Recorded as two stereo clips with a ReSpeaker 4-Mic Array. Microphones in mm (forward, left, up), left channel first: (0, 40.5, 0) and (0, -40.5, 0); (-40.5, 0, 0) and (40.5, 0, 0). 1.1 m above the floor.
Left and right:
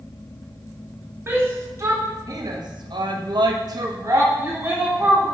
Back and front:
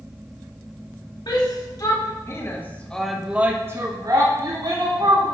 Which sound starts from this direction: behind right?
A shout, at 1.3 s.